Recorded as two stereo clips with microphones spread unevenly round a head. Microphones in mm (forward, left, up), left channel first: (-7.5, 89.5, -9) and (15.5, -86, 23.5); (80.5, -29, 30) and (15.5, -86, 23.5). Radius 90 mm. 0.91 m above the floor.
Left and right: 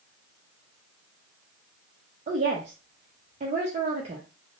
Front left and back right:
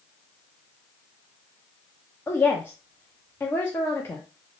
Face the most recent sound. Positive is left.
turn(degrees=-25)